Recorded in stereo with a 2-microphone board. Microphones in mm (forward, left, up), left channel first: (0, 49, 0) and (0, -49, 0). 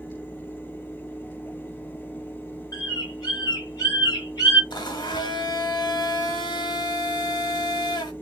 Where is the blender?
50° left (ahead or behind), 0.9 m.